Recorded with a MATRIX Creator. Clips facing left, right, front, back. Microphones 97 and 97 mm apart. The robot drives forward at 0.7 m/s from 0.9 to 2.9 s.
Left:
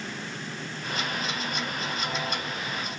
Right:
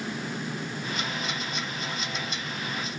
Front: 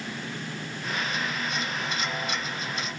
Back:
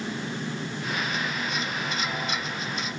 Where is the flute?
I don't hear a flute.